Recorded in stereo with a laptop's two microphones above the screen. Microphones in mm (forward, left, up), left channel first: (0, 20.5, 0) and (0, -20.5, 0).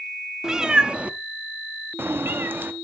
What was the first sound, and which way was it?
A cat meowing, 15° right (ahead or behind).